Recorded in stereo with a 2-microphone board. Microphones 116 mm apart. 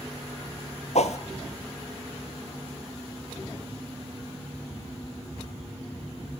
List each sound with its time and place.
0.9 s a whoosh: 75° left (ahead or behind), 1.1 m